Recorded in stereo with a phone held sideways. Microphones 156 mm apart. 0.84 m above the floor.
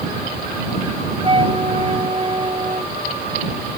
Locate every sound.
1.2 s a flute: 30° right (ahead or behind)